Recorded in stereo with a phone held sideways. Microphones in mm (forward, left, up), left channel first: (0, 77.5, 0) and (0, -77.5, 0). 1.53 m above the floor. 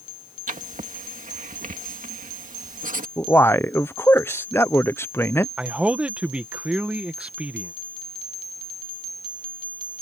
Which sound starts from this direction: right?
Writing, at 0.5 s.